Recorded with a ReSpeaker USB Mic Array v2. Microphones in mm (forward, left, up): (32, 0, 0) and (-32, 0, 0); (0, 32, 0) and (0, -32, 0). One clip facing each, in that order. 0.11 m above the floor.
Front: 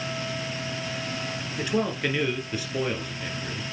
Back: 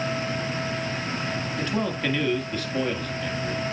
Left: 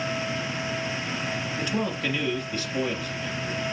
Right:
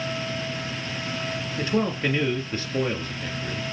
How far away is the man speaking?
About 1.5 m.